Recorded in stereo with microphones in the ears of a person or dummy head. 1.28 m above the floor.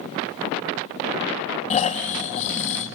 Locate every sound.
1.7 s snoring: 30° left (ahead or behind), 1.0 m